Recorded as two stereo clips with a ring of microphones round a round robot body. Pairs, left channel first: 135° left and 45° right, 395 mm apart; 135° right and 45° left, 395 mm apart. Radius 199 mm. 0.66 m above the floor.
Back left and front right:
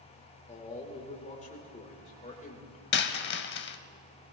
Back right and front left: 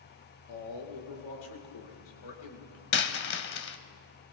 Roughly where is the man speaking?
Behind right.